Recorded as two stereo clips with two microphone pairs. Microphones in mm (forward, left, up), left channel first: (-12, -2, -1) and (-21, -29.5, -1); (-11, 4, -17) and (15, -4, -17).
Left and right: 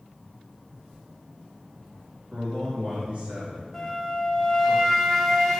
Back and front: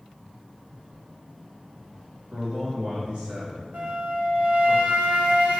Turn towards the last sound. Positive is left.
turn(degrees=-5)